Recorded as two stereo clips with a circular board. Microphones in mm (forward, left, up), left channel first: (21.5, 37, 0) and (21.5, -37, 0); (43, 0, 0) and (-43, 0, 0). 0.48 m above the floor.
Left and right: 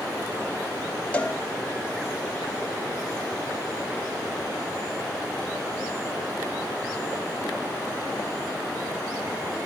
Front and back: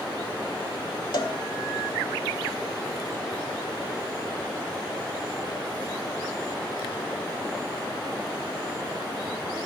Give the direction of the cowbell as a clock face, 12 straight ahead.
11 o'clock.